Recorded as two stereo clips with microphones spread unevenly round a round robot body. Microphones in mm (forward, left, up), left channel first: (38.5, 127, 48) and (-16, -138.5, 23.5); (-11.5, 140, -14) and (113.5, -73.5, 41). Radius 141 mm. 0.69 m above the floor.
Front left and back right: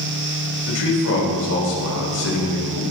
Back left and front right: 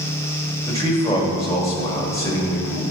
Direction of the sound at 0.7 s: 45° left.